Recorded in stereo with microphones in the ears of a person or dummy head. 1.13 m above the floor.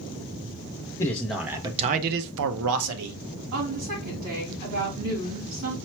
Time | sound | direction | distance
1.0 | a man speaking | 15° left (ahead or behind) | 0.6 m
3.5 | a woman speaking | 70° right (ahead or behind) | 2.5 m